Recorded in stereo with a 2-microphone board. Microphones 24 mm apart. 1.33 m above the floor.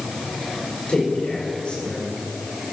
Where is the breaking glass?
No breaking glass in this recording.